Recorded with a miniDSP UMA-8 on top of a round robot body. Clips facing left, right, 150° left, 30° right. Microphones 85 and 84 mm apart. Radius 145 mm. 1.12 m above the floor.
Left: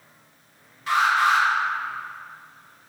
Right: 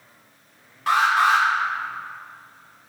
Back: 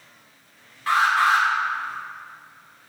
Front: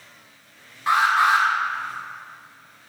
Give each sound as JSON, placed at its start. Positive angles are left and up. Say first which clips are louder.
{"t": 0.9, "sound": "an alarm", "louder": "right 2 dB, front 1 dB", "azimuth_deg": -95, "distance_m": 3.0}